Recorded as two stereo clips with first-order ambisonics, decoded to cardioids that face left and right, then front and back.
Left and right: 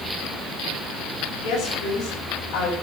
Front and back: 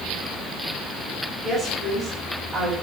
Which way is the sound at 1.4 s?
115° left.